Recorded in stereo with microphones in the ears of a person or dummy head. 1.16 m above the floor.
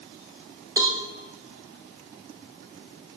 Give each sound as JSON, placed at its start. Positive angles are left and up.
{"t": 0.8, "sound": "a cowbell", "side_deg": -20, "distance_m": 1.0}